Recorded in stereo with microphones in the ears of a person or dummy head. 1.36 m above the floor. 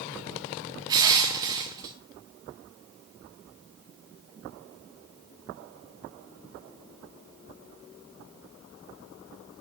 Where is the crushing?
20° right (ahead or behind), 2.5 m.